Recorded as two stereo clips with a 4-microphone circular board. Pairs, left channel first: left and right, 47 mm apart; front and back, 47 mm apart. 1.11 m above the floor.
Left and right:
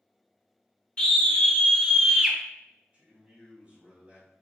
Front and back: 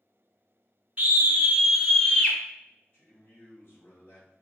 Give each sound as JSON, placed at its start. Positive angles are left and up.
{"t": 1.0, "sound": "a scream", "azimuth_deg": 135, "distance_m": 0.9}
{"t": 2.9, "sound": "a man speaking", "azimuth_deg": -30, "distance_m": 1.9}